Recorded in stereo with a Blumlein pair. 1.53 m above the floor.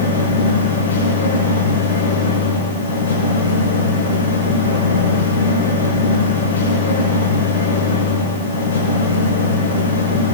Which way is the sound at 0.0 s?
65° left.